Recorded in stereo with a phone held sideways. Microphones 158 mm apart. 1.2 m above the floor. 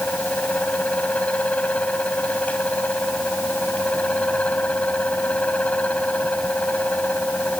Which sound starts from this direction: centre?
A fan, at 0.0 s.